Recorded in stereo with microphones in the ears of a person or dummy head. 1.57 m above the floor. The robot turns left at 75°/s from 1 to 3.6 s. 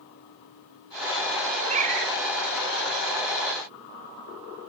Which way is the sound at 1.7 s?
35° right.